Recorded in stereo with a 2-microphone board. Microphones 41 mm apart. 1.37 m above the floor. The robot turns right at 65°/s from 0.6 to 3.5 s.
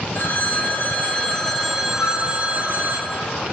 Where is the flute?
55° left (ahead or behind), 0.9 m; by 2.2 s 70° left (ahead or behind), 0.9 m.